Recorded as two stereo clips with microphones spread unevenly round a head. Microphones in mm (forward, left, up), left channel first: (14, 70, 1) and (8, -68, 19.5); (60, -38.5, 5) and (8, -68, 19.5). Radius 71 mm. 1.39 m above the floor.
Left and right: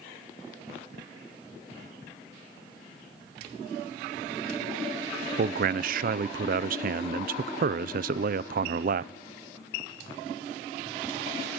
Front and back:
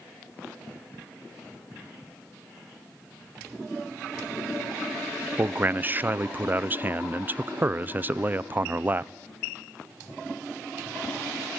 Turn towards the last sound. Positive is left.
turn(degrees=-85)